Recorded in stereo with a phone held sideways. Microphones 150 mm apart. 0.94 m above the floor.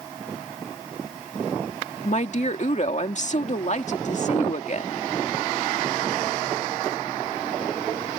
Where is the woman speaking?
50° left (ahead or behind).